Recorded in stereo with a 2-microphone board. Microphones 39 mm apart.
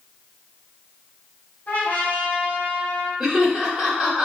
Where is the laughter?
20° right (ahead or behind), 1.2 m.